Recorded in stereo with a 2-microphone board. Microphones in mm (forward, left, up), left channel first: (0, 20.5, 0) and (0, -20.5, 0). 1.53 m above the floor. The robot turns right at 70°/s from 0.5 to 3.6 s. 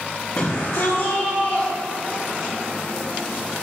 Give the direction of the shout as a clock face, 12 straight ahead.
9 o'clock.